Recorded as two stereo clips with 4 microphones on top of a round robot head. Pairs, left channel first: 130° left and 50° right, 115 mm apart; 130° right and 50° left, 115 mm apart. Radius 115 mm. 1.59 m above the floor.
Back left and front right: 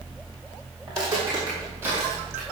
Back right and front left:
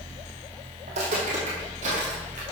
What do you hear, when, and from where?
0.9 s footsteps: 15° left, 3 m; by 2.4 s 30° left, 1.9 m